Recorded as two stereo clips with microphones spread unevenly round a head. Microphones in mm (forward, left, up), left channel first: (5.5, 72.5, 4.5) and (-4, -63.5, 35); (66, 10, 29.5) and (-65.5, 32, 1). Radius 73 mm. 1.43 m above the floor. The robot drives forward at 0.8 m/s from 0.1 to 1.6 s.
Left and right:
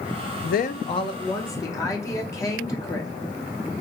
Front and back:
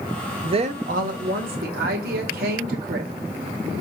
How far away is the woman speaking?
About 0.5 m.